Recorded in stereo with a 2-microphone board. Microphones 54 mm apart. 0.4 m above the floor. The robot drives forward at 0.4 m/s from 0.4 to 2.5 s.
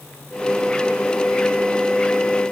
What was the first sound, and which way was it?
Only background noise.